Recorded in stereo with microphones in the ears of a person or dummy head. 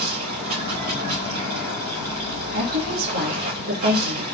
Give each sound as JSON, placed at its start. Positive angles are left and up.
{"t": 0.0, "sound": "running water", "side_deg": -45, "distance_m": 4.0}
{"t": 2.5, "sound": "a woman speaking", "side_deg": -80, "distance_m": 2.5}